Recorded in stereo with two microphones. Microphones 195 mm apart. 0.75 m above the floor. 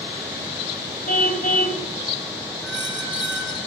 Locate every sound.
1.1 s a car horn: 45° left (ahead or behind), 2 m
2.6 s a squeak: 70° right (ahead or behind), 7 m